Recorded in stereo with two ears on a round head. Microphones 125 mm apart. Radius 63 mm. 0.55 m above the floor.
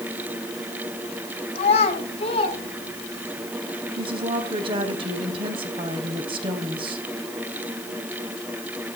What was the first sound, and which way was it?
A child speaking, 50° left (ahead or behind).